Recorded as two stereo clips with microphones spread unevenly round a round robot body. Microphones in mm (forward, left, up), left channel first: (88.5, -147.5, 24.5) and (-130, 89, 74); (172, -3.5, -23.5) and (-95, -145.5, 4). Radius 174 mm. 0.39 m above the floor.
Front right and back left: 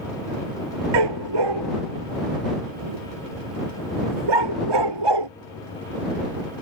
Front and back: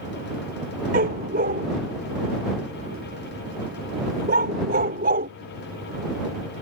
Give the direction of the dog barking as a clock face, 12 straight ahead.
7 o'clock.